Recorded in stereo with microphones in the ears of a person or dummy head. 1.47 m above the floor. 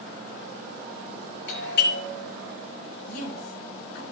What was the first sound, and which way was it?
A doorbell, 55° left (ahead or behind).